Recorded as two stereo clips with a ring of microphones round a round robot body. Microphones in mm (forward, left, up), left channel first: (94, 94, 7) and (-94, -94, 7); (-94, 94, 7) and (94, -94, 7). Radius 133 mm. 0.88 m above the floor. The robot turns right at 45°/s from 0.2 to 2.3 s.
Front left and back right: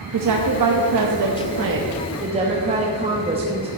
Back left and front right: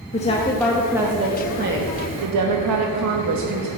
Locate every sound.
0.1 s a woman speaking: 160° right, 0.9 m; by 3.7 s 65° right, 0.9 m